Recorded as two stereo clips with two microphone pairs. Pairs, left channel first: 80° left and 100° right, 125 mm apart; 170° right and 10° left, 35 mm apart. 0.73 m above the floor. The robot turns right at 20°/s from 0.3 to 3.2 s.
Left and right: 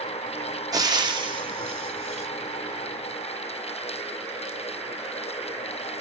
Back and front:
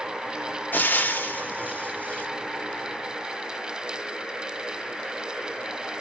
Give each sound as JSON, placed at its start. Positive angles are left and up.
{"t": 0.7, "sound": "frying", "azimuth_deg": -160, "distance_m": 0.6}